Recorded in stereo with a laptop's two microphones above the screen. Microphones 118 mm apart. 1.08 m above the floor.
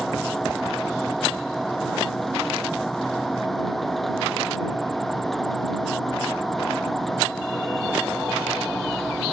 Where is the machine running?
Centre (ahead or behind).